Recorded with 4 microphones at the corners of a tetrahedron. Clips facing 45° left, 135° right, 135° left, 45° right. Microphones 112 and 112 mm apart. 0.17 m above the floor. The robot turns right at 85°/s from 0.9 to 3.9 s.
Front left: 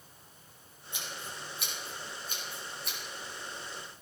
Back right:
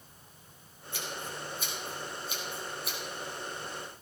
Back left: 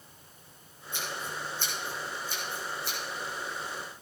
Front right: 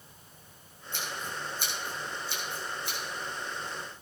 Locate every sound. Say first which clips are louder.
0.9 s scissors: back right 4 dB, back left 1 dB; 25° right, 6.5 m; by 3.0 s 150° left, 6.5 m